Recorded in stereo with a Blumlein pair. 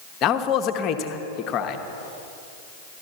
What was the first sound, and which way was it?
A man speaking, 30° left.